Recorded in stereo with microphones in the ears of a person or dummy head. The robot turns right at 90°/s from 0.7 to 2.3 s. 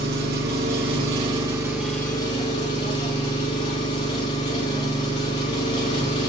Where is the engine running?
110° right, 0.8 m; by 6.3 s 35° left, 0.8 m.